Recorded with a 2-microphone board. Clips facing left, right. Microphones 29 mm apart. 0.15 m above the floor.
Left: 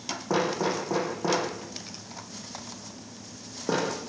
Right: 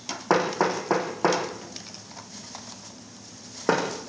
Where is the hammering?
80° right, 8 m.